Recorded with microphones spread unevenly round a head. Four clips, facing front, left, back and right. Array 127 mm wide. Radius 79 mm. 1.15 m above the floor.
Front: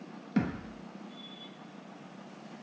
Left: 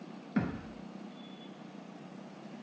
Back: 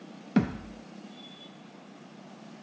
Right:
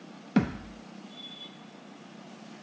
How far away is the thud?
About 0.5 m.